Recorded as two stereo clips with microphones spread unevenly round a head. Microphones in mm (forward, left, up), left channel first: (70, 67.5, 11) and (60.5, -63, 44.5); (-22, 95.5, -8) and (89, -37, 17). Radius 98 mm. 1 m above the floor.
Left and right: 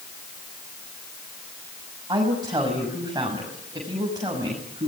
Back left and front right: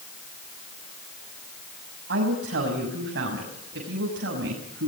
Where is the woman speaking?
35° right, 6 m.